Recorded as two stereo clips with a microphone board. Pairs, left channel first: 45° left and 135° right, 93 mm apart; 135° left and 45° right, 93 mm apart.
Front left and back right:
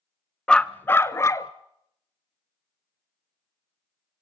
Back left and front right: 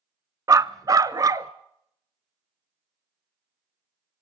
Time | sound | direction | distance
0.5 | a dog barking | 30° right | 0.6 m